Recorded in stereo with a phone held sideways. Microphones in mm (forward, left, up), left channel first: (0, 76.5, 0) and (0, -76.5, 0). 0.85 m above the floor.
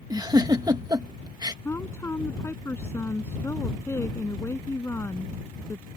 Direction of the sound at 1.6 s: 15° left (ahead or behind).